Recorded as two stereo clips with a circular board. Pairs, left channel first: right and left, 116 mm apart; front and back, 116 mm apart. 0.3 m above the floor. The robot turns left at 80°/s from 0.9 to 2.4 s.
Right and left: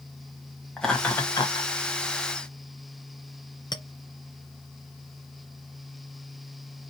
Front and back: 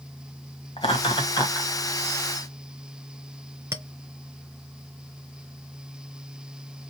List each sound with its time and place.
0.8 s laughter: 5° right, 1.2 m; by 1.7 s 70° right, 1.2 m
3.7 s a clink: 125° right, 0.6 m